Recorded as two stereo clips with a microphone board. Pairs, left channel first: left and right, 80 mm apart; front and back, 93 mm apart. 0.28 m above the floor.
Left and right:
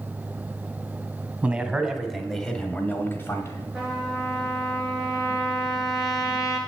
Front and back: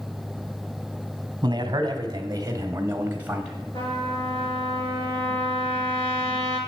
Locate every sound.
1.4 s a man speaking: 155° right, 1.6 m; by 3.7 s 100° left, 1.2 m
3.7 s a trumpet: straight ahead, 4 m